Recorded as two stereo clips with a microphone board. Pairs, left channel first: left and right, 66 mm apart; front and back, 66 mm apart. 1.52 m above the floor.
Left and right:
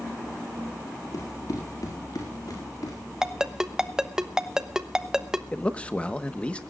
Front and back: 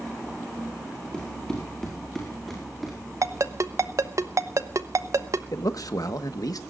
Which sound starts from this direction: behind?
A ringtone, at 3.2 s.